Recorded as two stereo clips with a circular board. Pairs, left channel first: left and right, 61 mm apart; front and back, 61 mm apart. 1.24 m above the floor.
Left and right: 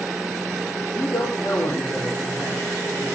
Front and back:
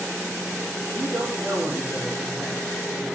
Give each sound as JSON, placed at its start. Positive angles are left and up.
{"t": 0.9, "sound": "a man speaking", "azimuth_deg": 130, "distance_m": 3.0}